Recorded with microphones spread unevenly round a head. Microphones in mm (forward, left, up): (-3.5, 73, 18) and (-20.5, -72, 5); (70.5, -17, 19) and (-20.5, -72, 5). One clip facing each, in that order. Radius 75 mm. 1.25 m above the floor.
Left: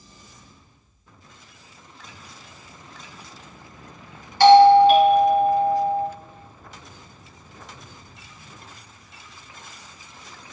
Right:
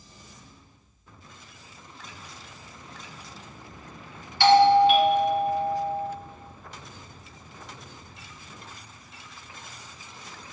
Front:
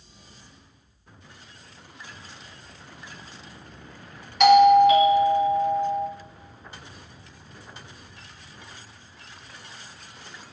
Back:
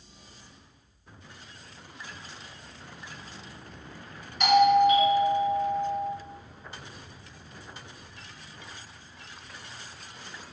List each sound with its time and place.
4.4 s a doorbell: 35° left, 0.9 m